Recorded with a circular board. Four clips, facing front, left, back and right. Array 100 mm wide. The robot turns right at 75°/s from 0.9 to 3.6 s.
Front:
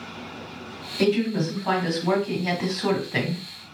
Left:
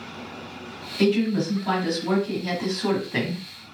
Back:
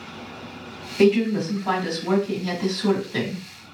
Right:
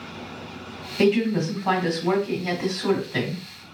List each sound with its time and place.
1.0 s a woman speaking: 130° right, 1.8 m; by 3.4 s 55° left, 1.8 m